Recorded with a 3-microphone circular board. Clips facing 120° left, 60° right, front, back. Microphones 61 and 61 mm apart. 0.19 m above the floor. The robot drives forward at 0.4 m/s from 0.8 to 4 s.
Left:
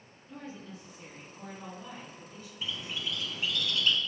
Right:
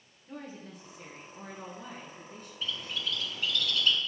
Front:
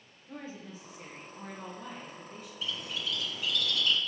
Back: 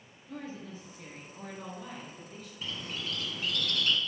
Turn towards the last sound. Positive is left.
turn(degrees=180)